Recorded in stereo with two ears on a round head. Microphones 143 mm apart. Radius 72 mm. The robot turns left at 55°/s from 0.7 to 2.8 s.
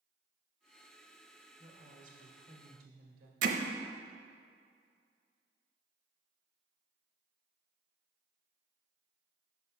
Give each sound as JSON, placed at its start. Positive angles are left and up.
{"t": 1.6, "sound": "a woman speaking", "azimuth_deg": -35, "distance_m": 1.5}
{"t": 3.4, "sound": "hammering", "side_deg": -55, "distance_m": 0.7}